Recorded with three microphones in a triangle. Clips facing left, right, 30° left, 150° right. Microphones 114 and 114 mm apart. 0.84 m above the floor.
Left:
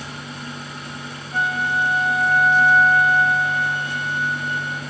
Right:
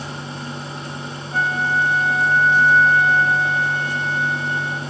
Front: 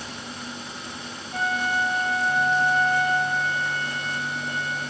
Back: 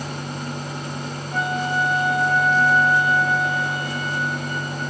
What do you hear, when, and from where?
1.3 s a flute: 165° right, 9 m